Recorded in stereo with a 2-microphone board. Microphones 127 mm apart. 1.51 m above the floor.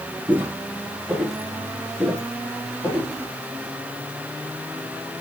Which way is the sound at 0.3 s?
15° right (ahead or behind).